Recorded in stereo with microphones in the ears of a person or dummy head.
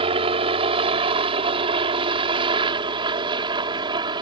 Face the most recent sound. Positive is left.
turn(degrees=-25)  # may be behind; listen again after turning